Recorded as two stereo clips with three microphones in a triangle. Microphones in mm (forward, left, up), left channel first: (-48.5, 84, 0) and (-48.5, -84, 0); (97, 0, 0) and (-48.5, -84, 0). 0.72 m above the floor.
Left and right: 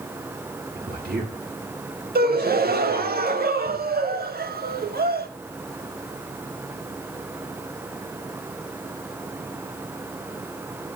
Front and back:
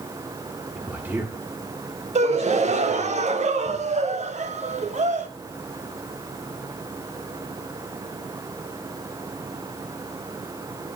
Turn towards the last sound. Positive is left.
turn(degrees=-105)